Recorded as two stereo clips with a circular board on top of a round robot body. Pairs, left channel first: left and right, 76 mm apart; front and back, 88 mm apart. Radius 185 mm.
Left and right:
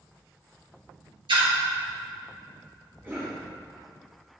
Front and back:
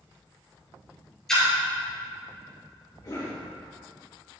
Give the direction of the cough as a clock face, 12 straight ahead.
1 o'clock.